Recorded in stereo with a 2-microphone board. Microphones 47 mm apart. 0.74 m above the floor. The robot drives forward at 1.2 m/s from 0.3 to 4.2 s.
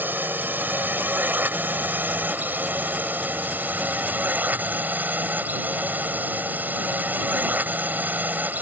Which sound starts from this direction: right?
A drone, at 0.0 s.